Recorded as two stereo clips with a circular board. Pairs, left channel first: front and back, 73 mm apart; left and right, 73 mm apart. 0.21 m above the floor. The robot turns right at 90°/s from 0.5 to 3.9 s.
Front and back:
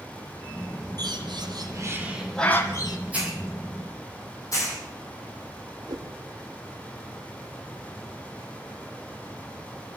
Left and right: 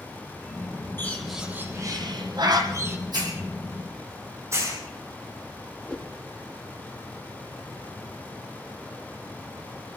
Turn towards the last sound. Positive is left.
turn(degrees=165)